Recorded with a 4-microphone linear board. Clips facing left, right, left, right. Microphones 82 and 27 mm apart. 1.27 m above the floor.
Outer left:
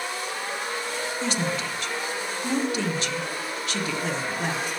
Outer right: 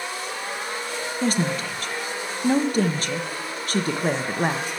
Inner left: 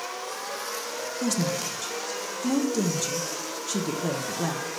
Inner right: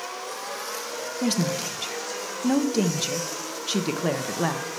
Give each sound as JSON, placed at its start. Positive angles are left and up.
{"t": 1.2, "sound": "a woman speaking", "side_deg": -45, "distance_m": 0.6}